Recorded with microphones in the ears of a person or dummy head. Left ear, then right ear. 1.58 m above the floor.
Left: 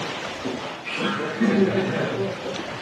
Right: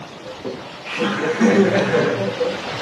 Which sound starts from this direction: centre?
Laughter, at 0.2 s.